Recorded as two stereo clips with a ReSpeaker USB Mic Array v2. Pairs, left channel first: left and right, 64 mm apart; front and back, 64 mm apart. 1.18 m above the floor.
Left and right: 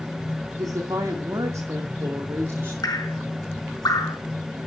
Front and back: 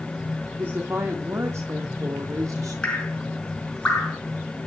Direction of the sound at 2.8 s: 75° left.